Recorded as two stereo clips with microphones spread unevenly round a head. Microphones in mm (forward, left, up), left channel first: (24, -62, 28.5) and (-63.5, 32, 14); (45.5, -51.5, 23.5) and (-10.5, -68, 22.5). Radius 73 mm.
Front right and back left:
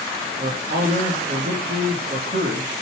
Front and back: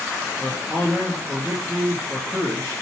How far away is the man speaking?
About 2 m.